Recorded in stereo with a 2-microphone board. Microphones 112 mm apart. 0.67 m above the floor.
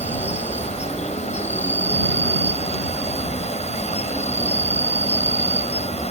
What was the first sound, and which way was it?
An insect, 75° left (ahead or behind).